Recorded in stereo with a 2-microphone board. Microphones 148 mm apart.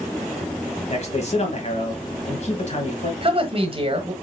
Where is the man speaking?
50° left (ahead or behind), 1.4 m.